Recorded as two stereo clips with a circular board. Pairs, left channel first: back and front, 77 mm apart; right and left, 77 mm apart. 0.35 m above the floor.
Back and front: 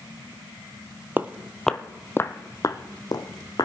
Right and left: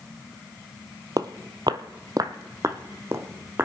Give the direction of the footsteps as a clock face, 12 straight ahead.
10 o'clock.